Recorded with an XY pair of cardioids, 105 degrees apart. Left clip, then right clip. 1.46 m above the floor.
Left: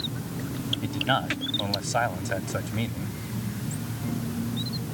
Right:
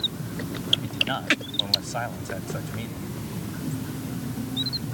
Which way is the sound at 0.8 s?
30° left.